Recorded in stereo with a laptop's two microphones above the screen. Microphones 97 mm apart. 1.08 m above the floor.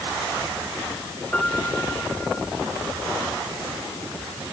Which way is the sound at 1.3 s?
15° left (ahead or behind).